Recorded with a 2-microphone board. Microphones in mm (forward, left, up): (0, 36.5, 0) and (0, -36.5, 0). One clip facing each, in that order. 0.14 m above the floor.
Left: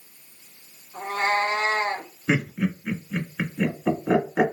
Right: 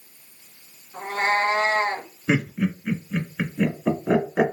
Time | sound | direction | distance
0.9 | a cat meowing | 40° right (ahead or behind) | 0.9 m
2.3 | laughter | 5° left (ahead or behind) | 1.5 m